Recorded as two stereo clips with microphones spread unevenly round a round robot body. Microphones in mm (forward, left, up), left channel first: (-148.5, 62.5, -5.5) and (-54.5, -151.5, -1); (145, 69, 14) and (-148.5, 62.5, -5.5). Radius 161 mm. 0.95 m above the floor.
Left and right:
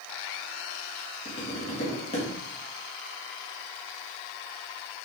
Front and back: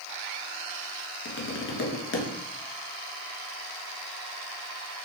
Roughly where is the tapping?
Ahead left.